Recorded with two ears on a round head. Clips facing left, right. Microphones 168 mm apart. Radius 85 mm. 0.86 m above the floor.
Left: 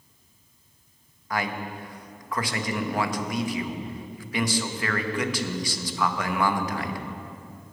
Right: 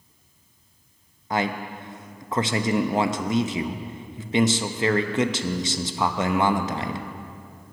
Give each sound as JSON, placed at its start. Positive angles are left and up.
{"t": 1.3, "sound": "a man speaking", "side_deg": -20, "distance_m": 0.6}